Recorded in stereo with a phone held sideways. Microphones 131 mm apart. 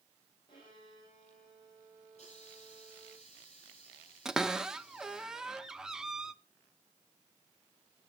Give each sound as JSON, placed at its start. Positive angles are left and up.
{"t": 0.5, "sound": "a violin", "side_deg": 40, "distance_m": 6.5}
{"t": 2.1, "sound": "a hiss", "side_deg": 55, "distance_m": 9.5}
{"t": 4.2, "sound": "a cupboard door", "side_deg": -5, "distance_m": 0.6}